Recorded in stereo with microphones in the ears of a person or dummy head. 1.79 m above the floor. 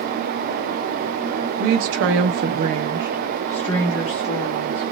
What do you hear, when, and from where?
1.6 s a woman speaking: 80° right, 0.8 m; by 4.8 s 35° left (ahead or behind), 1.2 m